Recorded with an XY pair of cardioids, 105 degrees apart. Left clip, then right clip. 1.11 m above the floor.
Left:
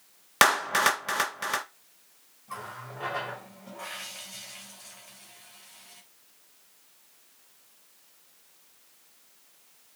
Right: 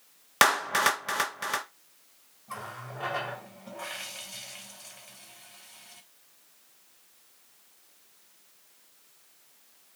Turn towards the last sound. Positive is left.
turn(degrees=-20)